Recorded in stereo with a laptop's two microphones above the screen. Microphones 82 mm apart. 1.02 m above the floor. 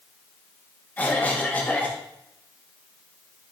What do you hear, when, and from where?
1.0 s a cough: 20° left (ahead or behind), 1.1 m